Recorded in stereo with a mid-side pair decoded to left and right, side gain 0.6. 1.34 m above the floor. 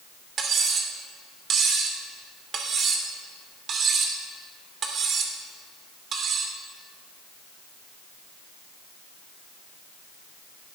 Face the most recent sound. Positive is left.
turn(degrees=-45)